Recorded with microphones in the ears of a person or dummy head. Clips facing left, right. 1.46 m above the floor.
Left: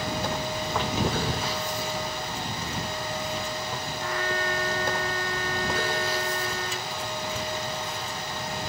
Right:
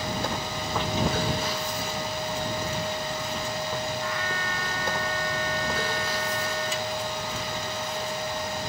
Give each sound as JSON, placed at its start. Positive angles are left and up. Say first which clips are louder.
{"t": 4.0, "sound": "a trumpet", "louder": "left 2 dB", "side_deg": 30}